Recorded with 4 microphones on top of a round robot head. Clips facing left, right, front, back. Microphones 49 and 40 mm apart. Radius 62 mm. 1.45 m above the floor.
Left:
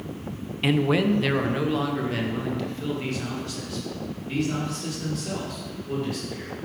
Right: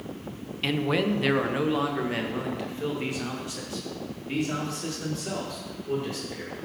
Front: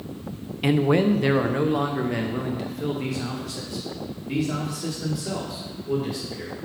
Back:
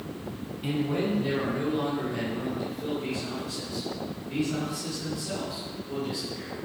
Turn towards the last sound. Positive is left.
turn(degrees=-25)